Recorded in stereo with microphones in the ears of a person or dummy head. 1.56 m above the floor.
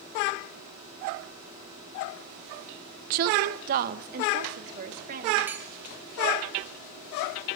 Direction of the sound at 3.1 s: 45° right (ahead or behind).